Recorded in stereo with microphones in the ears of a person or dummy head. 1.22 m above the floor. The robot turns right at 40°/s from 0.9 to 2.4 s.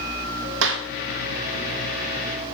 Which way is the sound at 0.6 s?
65° right (ahead or behind).